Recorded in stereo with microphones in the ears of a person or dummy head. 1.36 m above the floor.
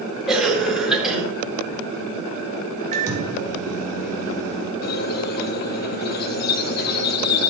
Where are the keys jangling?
No keys jangling in this recording.